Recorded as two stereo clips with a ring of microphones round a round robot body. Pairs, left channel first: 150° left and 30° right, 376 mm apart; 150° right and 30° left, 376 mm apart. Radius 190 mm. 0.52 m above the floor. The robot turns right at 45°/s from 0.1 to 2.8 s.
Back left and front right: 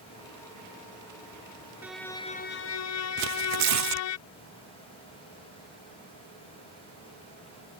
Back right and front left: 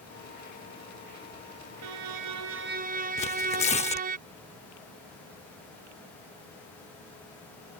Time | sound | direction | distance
1.8 | a violin | 55° left | ?
3.2 | tearing paper | 75° right | ?